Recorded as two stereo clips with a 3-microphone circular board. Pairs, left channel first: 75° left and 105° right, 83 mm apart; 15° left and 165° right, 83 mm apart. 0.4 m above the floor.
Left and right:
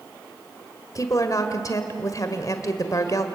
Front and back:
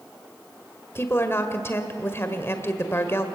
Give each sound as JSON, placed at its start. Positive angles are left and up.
{"t": 0.9, "sound": "a woman speaking", "azimuth_deg": 60, "distance_m": 1.6}